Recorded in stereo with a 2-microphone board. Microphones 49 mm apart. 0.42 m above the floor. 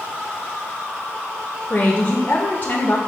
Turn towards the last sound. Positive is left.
turn(degrees=40)  # may be behind; listen again after turning